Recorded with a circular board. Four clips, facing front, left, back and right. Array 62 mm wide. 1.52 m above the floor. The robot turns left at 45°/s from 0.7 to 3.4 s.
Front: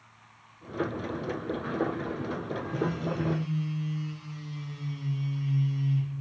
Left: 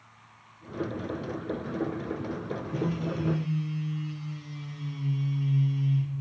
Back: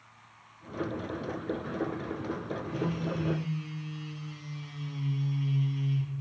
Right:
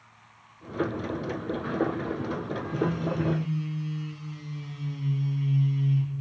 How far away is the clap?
I don't hear a clap.